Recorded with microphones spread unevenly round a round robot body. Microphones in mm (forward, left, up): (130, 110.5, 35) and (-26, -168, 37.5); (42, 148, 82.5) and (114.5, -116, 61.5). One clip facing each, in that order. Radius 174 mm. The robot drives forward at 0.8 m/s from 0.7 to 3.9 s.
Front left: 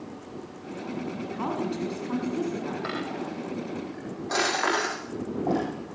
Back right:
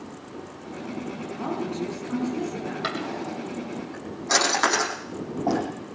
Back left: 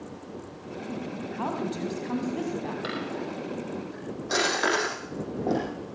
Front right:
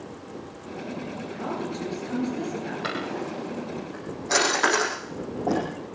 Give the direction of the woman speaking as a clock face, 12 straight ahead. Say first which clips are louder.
Back right 1 dB, even; 8 o'clock.